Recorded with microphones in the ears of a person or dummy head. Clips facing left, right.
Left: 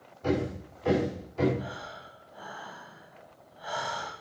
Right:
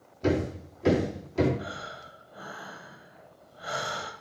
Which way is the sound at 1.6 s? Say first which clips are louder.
Even; 30° right (ahead or behind).